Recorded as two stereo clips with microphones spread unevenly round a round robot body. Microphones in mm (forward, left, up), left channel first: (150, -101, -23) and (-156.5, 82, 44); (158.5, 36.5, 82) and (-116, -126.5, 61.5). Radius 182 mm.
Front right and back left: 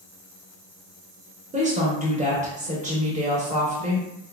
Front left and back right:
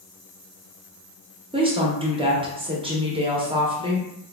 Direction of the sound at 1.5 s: 145° right.